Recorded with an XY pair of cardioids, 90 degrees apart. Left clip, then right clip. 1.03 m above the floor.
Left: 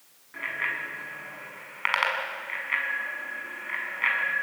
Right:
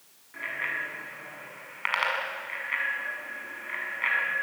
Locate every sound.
0.3 s a bicycle bell: 25° left, 7 m